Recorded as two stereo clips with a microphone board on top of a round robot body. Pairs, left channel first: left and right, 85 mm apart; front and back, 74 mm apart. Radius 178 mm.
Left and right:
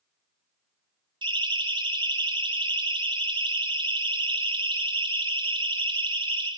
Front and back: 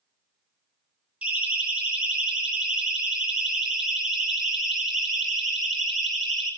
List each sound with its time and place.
1.2 s a siren: 110° right, 7 m; by 6.5 s 85° right, 9 m